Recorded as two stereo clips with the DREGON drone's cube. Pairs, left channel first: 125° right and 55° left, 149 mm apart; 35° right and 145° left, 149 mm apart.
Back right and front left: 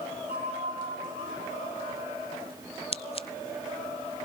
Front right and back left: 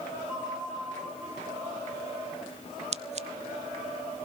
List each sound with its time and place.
0.3 s a bell: 65° left, 7 m
2.9 s scissors: 175° right, 0.6 m